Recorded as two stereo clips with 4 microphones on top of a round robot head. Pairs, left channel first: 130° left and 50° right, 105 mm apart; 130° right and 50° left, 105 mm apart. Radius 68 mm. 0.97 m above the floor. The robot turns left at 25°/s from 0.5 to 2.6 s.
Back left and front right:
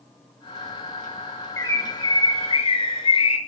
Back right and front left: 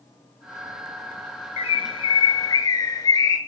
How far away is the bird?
About 5.5 m.